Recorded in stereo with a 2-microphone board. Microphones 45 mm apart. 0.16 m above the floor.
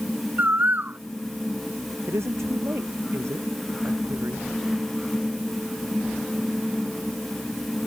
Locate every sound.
0.4 s a bird: 50° right (ahead or behind)
2.1 s a woman speaking: 85° right